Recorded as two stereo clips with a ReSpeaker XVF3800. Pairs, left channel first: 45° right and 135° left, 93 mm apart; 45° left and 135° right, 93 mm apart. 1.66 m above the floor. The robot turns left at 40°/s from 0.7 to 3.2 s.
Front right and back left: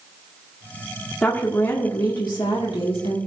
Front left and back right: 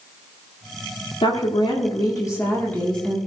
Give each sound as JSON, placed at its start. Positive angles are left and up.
{"t": 1.2, "sound": "a woman speaking", "azimuth_deg": 35, "distance_m": 1.8}